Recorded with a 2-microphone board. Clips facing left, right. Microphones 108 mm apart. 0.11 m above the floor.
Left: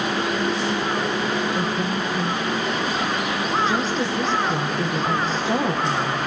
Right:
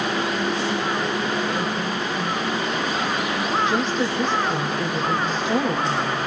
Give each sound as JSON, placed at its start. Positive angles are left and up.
{"t": 1.6, "sound": "a woman speaking", "side_deg": 35, "distance_m": 4.5}